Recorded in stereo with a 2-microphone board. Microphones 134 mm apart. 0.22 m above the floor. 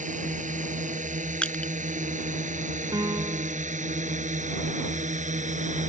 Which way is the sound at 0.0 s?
70° right (ahead or behind).